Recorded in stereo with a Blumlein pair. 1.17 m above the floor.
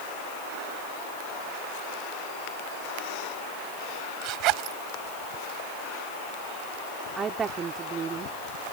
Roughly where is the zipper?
Ahead right.